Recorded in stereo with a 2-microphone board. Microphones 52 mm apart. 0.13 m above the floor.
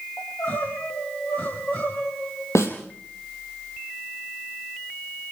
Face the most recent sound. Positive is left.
turn(degrees=70)  # may be behind; listen again after turning